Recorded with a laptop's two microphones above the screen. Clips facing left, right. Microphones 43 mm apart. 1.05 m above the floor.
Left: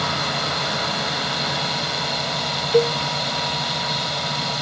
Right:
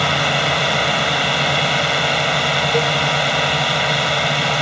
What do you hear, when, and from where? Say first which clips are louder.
0.0 s a drone: right 6 dB; 55° right (ahead or behind)
2.7 s a cowbell: even; 45° left (ahead or behind)